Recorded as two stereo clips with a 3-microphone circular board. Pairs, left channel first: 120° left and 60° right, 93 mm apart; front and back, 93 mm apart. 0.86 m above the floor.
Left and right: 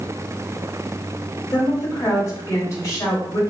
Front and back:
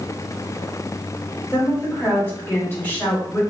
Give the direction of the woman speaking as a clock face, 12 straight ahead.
10 o'clock.